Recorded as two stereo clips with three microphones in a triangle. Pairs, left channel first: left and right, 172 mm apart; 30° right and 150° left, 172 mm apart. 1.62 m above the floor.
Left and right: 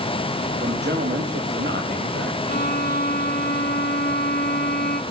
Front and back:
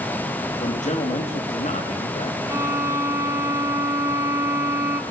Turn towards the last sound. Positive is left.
turn(degrees=80)